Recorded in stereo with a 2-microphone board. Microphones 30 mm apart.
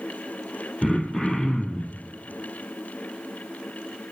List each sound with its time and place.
0.8 s throat clearing: 20° left (ahead or behind), 1.4 m